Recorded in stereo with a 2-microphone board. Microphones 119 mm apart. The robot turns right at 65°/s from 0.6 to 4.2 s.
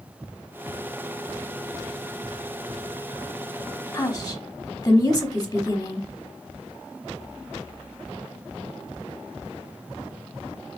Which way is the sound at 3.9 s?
25° left (ahead or behind).